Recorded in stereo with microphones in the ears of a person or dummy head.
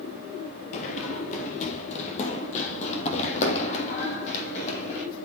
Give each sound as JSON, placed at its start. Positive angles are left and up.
{"t": 0.7, "sound": "running footsteps", "side_deg": 35, "distance_m": 1.9}